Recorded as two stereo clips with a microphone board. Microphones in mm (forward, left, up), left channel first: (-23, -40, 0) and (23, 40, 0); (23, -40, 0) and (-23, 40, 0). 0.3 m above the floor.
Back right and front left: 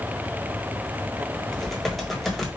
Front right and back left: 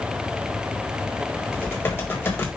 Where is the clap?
No clap in this recording.